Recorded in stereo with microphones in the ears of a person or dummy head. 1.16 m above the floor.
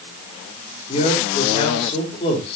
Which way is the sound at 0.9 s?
35° left (ahead or behind).